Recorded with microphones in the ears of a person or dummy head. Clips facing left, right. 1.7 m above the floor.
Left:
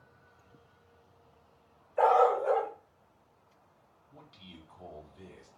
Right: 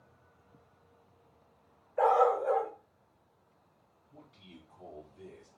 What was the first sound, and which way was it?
A dog barking, 45° left (ahead or behind).